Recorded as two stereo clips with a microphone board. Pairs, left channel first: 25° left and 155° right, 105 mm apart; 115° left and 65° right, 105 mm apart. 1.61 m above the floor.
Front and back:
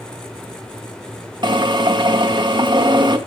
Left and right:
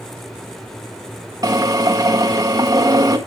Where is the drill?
120° right, 1.6 m.